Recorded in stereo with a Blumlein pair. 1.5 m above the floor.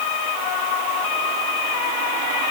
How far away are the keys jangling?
No keys jangling in this recording.